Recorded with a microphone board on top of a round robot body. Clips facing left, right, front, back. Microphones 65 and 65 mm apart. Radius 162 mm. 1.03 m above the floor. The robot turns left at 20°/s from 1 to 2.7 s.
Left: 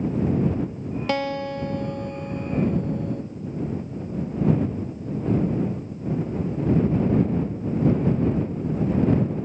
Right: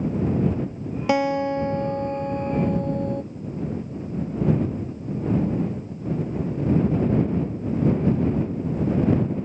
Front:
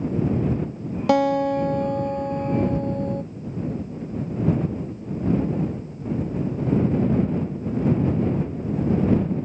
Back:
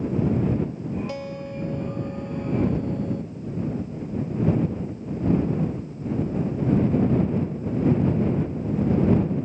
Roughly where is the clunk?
No clunk in this recording.